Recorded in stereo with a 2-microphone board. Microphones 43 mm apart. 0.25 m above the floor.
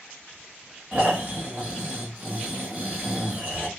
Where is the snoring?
45° right (ahead or behind), 1.6 m.